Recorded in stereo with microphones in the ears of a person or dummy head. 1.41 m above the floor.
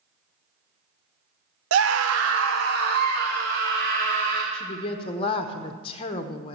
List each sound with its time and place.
1.7 s a scream: 80° right, 0.8 m; by 4.4 s 65° right (ahead or behind), 3.5 m
4.5 s a woman speaking: 30° left (ahead or behind), 0.7 m